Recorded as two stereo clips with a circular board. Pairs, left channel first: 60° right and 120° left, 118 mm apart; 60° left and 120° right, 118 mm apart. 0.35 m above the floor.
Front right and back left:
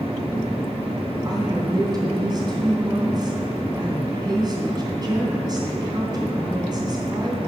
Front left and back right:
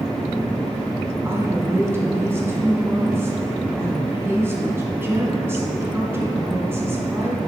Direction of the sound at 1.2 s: 170° left.